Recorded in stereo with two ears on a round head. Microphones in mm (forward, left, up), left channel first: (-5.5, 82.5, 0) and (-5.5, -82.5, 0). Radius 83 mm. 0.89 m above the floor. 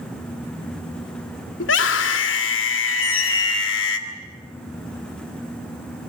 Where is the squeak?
35° left (ahead or behind), 6 m.